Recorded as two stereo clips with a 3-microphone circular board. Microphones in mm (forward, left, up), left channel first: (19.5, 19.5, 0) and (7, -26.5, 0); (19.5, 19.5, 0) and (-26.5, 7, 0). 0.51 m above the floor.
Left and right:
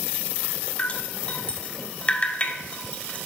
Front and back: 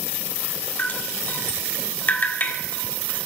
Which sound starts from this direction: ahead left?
Dripping, at 0.8 s.